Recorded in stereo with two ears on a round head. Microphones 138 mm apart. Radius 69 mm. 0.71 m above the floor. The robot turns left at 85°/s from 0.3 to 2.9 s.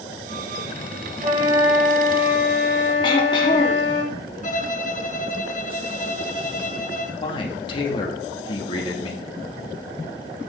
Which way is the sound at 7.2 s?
35° left (ahead or behind).